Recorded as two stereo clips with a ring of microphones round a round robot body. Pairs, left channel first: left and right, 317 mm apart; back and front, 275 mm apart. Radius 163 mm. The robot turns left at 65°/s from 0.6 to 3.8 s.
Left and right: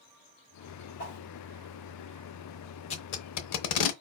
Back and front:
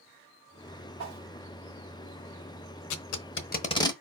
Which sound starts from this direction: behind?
Tape being pulled, at 2.9 s.